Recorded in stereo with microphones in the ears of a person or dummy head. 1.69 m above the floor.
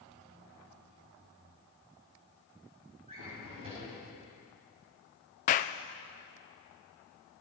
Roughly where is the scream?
I don't hear a scream.